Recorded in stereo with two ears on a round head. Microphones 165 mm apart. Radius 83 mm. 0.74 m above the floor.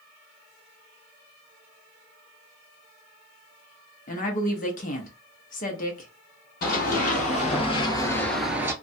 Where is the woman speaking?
40° left (ahead or behind), 0.7 m.